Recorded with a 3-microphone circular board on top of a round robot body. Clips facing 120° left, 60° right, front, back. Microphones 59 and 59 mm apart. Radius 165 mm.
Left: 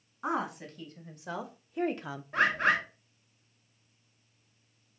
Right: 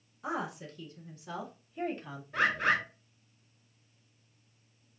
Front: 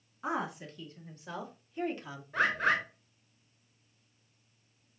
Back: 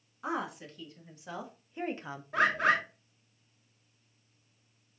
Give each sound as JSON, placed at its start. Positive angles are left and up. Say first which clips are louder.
{"t": 0.2, "sound": "a woman speaking", "louder": "left 3 dB, even", "azimuth_deg": 95, "distance_m": 1.9}
{"t": 2.3, "sound": "a bird", "louder": "left 2 dB, back 2 dB", "azimuth_deg": 165, "distance_m": 1.1}